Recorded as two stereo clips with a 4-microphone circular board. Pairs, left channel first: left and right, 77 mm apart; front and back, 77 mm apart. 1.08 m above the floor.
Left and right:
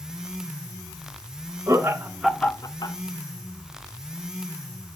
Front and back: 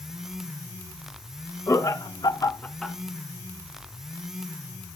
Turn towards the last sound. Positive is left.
turn(degrees=95)